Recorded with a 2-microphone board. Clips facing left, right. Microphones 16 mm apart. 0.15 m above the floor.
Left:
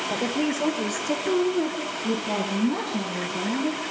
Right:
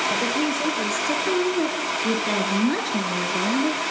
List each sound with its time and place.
0.1 s a woman speaking: centre (ahead or behind), 4 m; by 3.8 s 60° right (ahead or behind), 3.5 m